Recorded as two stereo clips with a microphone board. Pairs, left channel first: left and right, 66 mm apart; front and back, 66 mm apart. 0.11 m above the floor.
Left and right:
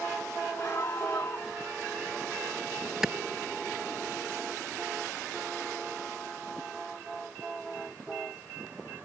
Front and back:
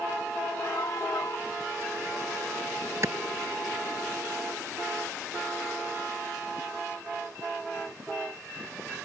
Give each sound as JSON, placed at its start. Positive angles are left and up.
{"t": 0.6, "sound": "a scream", "azimuth_deg": 40}
{"t": 3.0, "sound": "a clap", "azimuth_deg": -170}